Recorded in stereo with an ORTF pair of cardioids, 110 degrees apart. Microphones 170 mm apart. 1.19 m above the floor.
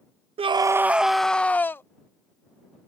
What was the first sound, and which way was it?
A scream, 35° right.